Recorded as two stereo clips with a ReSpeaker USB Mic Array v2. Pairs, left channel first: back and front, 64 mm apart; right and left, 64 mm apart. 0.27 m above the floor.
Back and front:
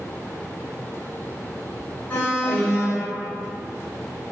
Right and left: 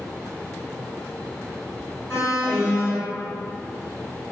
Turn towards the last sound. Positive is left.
turn(degrees=-120)